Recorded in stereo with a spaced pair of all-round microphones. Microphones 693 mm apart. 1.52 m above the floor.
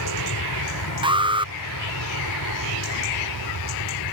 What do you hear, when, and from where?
0.0 s an aircraft: 25° left (ahead or behind)
1.0 s an alarm: 5° right (ahead or behind)